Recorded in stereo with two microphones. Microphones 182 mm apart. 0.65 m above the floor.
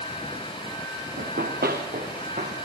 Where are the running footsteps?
65° right (ahead or behind), 4 m; by 2.5 s 55° right (ahead or behind), 6 m.